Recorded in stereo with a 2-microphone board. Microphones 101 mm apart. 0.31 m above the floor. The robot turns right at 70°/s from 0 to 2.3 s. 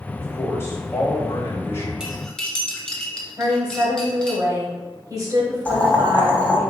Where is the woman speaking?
35° right (ahead or behind), 1.2 m.